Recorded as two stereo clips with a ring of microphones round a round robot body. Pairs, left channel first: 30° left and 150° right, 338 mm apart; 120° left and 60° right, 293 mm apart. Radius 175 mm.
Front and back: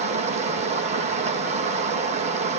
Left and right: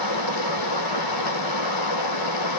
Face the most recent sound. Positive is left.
turn(degrees=140)